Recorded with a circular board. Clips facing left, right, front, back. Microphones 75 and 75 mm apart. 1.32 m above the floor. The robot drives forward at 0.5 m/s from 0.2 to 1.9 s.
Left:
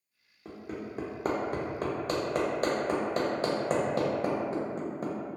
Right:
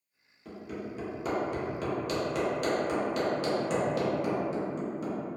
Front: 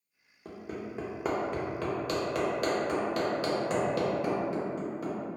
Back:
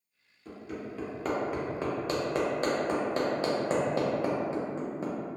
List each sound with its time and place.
0.5 s hammering: 35° left, 0.7 m; by 5.1 s 125° left, 0.5 m